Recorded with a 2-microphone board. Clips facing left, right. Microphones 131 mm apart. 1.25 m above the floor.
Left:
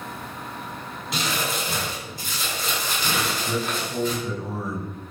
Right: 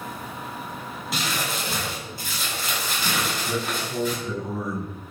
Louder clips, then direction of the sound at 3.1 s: Left 1 dB; 5° left (ahead or behind).